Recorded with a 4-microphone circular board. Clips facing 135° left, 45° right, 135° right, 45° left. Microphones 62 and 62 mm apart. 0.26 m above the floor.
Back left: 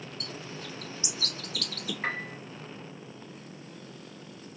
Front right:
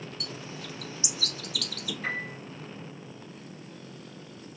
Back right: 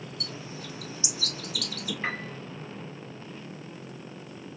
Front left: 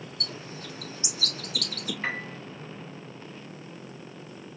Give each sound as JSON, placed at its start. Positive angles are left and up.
{"t": 0.2, "sound": "a bird", "azimuth_deg": 85, "distance_m": 1.1}
{"t": 2.0, "sound": "a piano", "azimuth_deg": 135, "distance_m": 1.6}